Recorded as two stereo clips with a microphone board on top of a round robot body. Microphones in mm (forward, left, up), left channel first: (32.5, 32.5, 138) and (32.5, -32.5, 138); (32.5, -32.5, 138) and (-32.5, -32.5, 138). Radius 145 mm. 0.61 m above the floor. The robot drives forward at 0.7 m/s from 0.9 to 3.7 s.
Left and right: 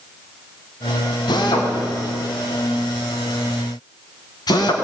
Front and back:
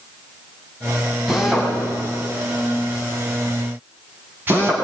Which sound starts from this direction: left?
A drill, at 1.3 s.